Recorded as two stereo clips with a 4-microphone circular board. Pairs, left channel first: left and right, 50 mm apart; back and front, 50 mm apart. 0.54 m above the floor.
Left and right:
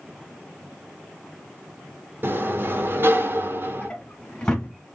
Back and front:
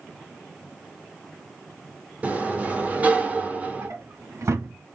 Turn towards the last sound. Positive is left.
turn(degrees=15)